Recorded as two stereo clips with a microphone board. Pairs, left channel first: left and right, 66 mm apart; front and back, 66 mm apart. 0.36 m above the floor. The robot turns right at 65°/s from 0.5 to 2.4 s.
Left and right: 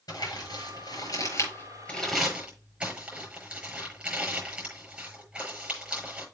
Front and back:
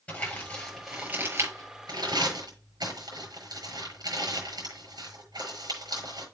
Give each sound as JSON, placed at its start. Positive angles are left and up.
{"t": 0.1, "sound": "crumpling", "azimuth_deg": 70, "distance_m": 6.5}